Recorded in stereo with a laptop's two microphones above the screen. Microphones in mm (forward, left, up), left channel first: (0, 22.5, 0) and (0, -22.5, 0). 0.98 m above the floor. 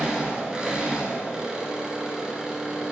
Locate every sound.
0.0 s an engine running: 15° right (ahead or behind), 9.5 m